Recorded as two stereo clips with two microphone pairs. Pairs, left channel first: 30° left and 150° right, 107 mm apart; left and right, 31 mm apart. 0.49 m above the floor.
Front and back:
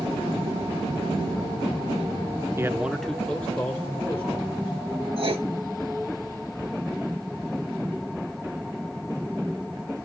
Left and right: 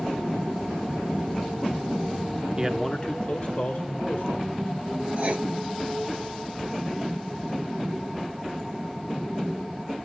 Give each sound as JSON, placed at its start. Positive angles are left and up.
{"t": 2.6, "sound": "a man speaking", "azimuth_deg": -125, "distance_m": 0.8}
{"t": 5.2, "sound": "writing", "azimuth_deg": -130, "distance_m": 1.7}